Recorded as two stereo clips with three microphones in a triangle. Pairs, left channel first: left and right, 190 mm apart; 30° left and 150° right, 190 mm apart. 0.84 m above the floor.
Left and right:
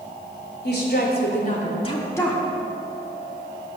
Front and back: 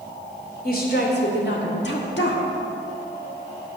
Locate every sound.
0.6 s a woman speaking: 65° left, 2.5 m; by 2.4 s straight ahead, 1.5 m